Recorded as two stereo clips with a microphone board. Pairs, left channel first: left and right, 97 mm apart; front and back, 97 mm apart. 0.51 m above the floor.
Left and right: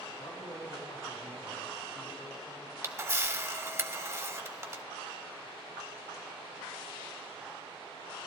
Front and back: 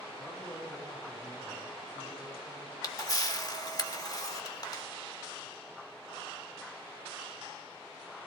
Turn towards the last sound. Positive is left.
turn(degrees=-35)